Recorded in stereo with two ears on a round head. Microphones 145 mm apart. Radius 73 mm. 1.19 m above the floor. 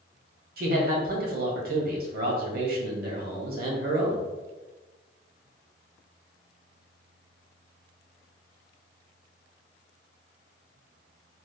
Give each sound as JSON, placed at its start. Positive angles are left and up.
{"t": 0.6, "sound": "a man speaking", "side_deg": -60, "distance_m": 1.2}